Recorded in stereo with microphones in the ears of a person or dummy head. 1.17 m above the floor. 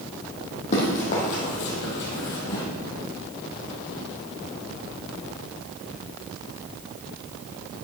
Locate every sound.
0.7 s running footsteps: 40° left (ahead or behind), 2.5 m